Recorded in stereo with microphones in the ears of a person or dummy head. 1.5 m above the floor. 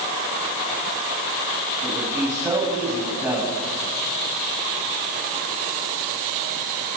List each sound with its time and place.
1.8 s a man speaking: 10° right (ahead or behind), 8.5 m